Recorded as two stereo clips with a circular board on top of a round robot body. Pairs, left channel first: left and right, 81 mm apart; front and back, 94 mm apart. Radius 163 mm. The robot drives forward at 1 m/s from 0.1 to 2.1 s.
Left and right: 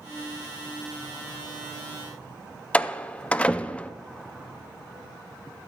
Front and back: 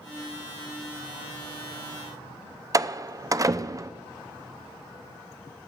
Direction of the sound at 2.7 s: 155° left.